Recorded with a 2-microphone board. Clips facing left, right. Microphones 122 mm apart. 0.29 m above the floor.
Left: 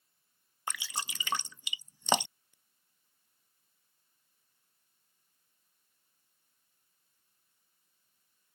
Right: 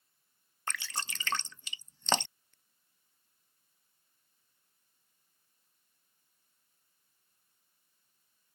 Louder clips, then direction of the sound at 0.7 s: Left 1 dB; 10° left (ahead or behind).